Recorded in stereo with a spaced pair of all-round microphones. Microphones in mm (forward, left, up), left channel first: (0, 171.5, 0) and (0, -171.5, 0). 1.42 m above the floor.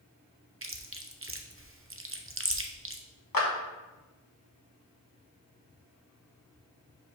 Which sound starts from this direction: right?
Chewing, at 0.6 s.